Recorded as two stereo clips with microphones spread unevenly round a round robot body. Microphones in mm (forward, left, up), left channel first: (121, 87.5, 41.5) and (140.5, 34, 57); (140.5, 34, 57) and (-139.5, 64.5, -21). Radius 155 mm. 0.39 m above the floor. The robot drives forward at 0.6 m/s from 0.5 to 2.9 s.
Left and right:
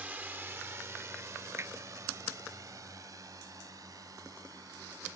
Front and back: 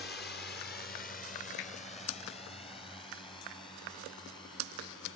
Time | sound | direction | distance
0.0 | a drone | 30° right | ?
1.6 | hammering | 35° right | ?